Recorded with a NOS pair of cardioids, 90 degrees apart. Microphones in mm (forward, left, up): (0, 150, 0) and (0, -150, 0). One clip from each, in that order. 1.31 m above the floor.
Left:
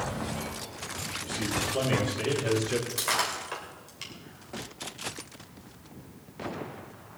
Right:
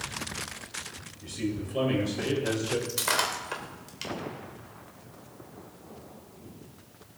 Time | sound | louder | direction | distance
1.2 | a man speaking | left 3 dB | 10° left | 5.5 m
2.9 | breaking glass | right 2 dB | 20° right | 3 m